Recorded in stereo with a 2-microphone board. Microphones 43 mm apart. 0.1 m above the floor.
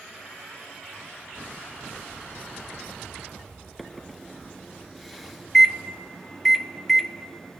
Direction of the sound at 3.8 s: Centre (ahead or behind).